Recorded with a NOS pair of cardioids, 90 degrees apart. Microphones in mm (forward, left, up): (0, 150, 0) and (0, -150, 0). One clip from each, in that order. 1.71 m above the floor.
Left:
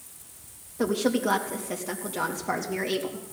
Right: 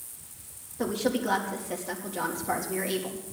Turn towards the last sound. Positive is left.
turn(degrees=20)